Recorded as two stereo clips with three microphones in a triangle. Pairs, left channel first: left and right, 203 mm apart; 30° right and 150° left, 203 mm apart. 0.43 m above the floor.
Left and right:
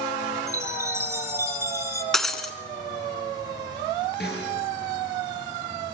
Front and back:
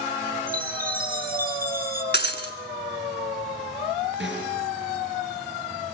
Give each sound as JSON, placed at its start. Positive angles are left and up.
{"t": 0.5, "sound": "a chime", "azimuth_deg": -165, "distance_m": 4.0}
{"t": 2.1, "sound": "breaking glass", "azimuth_deg": 0, "distance_m": 1.9}
{"t": 4.2, "sound": "a snare drum", "azimuth_deg": 125, "distance_m": 6.5}